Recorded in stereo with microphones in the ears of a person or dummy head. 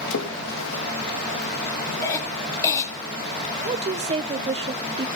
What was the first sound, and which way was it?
A splash, 75° left (ahead or behind).